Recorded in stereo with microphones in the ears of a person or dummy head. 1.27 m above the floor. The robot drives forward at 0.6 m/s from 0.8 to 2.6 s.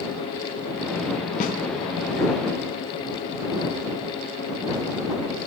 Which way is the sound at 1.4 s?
50° left (ahead or behind).